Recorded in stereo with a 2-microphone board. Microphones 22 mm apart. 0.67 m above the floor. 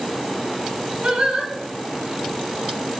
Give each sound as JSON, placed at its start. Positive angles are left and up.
{"t": 1.0, "sound": "singing", "side_deg": -70, "distance_m": 0.9}